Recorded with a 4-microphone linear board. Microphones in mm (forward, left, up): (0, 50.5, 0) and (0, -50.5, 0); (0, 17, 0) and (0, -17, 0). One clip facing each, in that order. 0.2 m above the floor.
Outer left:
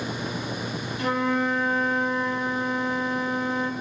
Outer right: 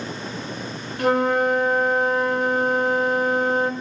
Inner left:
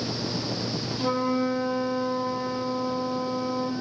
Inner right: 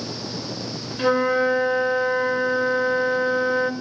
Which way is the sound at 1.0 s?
60° right (ahead or behind).